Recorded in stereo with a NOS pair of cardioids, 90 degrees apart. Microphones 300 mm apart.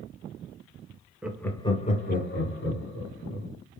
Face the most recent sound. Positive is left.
turn(degrees=50)